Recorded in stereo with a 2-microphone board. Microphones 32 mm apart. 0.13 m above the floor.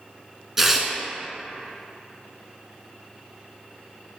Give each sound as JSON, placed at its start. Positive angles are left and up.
{"t": 0.6, "sound": "tearing paper", "side_deg": -10, "distance_m": 1.3}